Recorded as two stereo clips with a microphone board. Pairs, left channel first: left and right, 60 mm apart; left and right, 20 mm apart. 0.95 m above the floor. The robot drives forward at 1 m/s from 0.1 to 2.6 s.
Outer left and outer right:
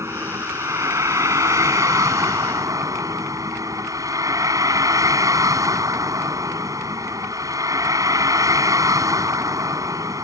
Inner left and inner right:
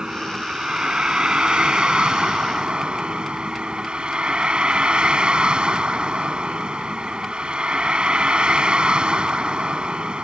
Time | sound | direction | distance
0.0 | a vehicle | 55° right (ahead or behind) | ?